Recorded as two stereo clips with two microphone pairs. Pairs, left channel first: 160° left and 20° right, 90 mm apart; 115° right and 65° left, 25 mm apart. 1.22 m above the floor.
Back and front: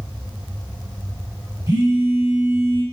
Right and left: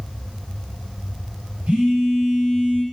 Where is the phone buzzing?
30° left, 5.5 m.